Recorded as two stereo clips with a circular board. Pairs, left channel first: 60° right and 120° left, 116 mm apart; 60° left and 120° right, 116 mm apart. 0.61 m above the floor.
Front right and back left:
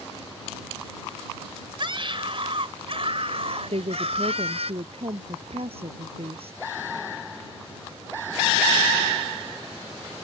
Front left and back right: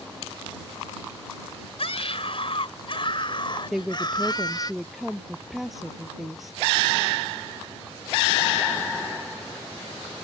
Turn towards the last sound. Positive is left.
turn(degrees=150)